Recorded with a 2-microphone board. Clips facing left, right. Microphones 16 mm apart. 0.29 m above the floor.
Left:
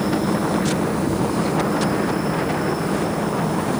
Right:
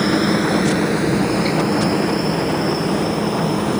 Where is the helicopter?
40° right (ahead or behind); by 3.8 s 35° right (ahead or behind).